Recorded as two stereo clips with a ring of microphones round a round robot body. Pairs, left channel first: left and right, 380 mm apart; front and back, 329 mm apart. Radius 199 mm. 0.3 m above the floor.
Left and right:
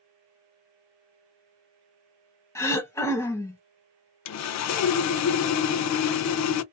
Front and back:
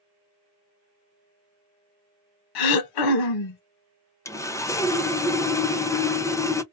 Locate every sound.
2.5 s throat clearing: 5° left, 0.6 m
4.2 s sawing: 80° left, 0.5 m